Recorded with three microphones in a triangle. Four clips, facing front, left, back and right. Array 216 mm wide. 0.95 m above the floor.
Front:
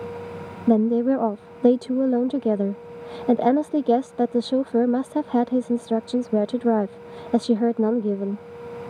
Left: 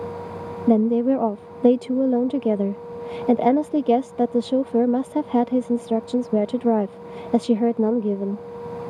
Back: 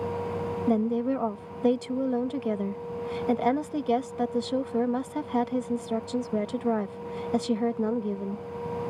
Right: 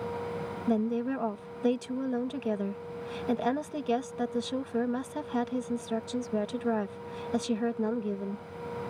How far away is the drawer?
I don't hear a drawer.